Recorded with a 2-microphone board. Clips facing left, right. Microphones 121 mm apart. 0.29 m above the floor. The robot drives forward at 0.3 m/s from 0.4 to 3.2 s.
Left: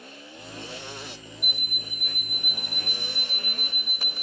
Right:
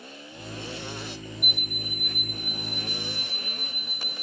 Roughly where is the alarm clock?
Right.